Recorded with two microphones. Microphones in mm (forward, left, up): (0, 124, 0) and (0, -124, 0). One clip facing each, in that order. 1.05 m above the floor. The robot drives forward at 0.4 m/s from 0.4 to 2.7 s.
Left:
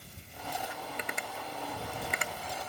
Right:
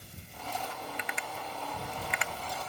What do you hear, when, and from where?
1.0 s tapping: 45° left (ahead or behind)